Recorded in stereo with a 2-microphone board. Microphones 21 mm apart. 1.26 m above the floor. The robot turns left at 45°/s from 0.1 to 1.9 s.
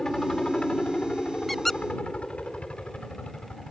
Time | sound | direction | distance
0.0 | a helicopter | 150° left | ?
1.5 | a squeak | 10° left (ahead or behind) | ?